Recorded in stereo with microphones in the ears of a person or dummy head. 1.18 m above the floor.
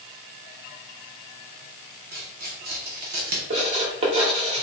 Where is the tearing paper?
45° right (ahead or behind), 1.3 m.